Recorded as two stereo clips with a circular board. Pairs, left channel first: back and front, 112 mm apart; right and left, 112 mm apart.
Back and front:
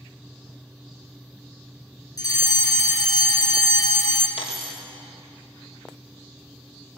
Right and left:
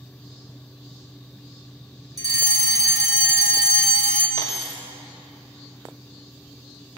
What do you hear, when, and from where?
2.2 s a fire alarm: 135° left, 3 m
4.4 s a dropped coin: 150° right, 5.5 m